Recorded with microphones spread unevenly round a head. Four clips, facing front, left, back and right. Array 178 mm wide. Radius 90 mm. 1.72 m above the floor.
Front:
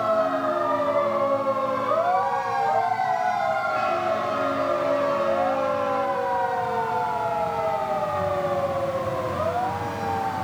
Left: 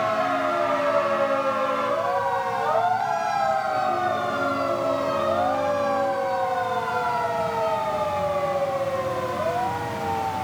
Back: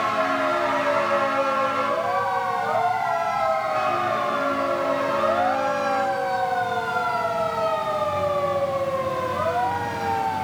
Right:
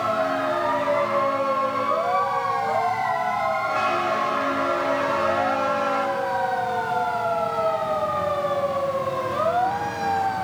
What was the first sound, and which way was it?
Only background noise.